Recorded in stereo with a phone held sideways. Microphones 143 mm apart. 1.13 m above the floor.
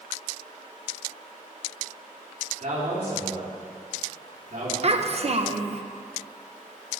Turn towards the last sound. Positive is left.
turn(degrees=-45)  # may be behind; listen again after turning